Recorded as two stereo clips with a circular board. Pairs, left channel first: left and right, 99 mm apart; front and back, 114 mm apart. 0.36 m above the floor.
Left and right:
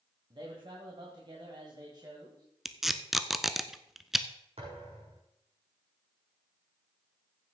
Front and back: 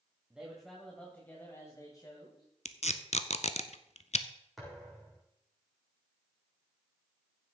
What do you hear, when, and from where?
0.3 s a man speaking: 100° right, 2 m; by 2.5 s 45° right, 2.5 m
2.6 s tape being pulled: straight ahead, 0.6 m
4.6 s a thud: 90° right, 5 m